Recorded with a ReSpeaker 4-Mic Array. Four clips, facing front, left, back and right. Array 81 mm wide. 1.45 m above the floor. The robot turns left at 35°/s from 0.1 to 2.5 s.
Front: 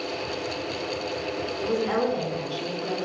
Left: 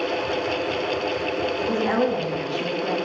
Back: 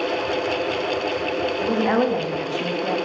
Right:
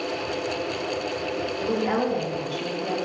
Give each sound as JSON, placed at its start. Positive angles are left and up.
{"t": 1.6, "sound": "a woman speaking", "azimuth_deg": 180, "distance_m": 2.5}